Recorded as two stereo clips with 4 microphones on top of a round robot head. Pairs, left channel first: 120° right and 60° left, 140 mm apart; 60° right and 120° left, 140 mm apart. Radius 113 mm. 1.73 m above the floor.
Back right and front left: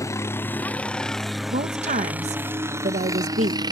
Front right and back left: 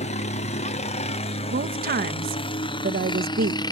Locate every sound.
0.0 s a helicopter: 60° right; by 3.7 s straight ahead
1.5 s a woman speaking: 100° left